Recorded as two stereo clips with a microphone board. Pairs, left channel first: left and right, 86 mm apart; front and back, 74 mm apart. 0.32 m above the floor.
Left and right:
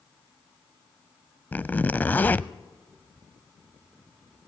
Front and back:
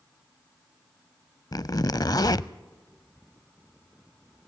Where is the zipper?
20° left, 0.5 m.